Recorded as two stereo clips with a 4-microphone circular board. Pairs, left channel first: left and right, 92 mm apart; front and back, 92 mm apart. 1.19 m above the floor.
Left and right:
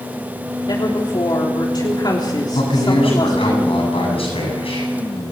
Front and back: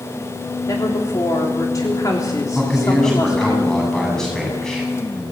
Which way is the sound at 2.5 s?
85° left.